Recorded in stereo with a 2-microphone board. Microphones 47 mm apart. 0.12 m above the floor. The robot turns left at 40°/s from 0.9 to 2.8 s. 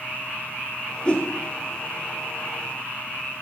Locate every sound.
1.1 s a whoosh: 20° left (ahead or behind), 1.4 m; by 1.3 s 30° left (ahead or behind), 1.4 m